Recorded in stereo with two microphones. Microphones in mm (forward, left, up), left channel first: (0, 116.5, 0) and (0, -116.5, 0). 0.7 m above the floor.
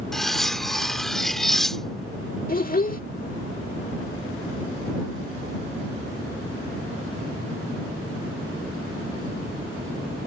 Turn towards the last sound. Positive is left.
turn(degrees=40)  # may be behind; listen again after turning